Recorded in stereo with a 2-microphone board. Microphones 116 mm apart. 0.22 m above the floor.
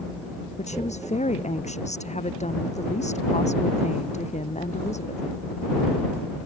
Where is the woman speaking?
80° left.